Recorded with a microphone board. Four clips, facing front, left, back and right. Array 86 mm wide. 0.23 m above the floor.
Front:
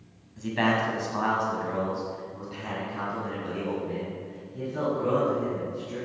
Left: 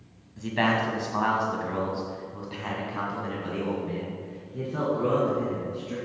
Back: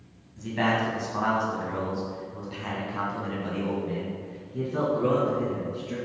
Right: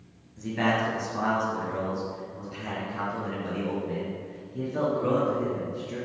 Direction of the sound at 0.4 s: 60° left.